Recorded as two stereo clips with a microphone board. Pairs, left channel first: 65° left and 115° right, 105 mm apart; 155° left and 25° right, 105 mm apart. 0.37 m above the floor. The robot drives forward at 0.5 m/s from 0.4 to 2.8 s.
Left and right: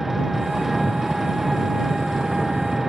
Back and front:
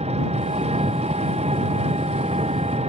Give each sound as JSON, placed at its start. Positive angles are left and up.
{"t": 0.0, "sound": "an engine running", "azimuth_deg": -25}